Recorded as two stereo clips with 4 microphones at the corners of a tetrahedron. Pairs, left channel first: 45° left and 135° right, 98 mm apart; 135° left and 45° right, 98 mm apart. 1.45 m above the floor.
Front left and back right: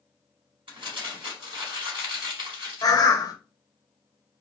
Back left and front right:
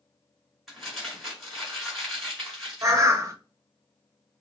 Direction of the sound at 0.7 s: 135° right.